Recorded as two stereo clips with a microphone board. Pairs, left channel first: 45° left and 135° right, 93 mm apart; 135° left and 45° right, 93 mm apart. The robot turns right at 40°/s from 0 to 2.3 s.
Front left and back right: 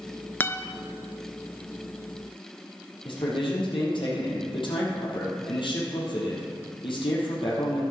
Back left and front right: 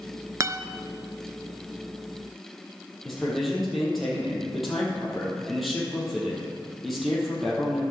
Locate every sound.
0.4 s a guitar: 10° right, 0.5 m; by 0.7 s straight ahead, 0.5 m
3.0 s a man speaking: 45° left, 3.5 m